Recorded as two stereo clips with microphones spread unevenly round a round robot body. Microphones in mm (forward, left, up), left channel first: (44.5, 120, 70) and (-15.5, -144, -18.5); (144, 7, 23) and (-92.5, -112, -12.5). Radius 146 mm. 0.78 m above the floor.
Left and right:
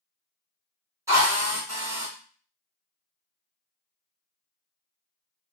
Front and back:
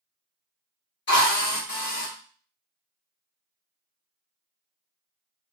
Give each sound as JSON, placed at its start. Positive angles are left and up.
{"t": 1.1, "sound": "a drill", "azimuth_deg": -25, "distance_m": 1.4}